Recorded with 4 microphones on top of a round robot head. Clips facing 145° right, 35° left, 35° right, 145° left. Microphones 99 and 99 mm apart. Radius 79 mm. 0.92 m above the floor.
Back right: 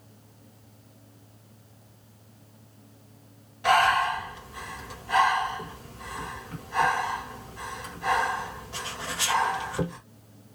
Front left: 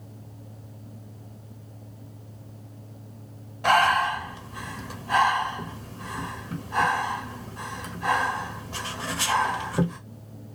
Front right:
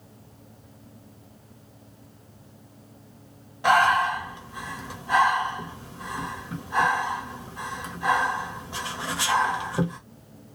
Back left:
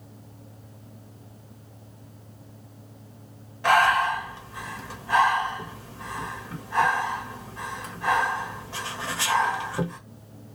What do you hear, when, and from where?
3.6 s breathing: 35° left, 1.2 m